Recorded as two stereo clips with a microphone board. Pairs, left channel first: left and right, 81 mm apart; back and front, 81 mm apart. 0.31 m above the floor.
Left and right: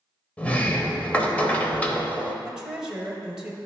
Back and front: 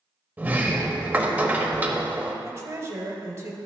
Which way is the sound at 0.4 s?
40° left.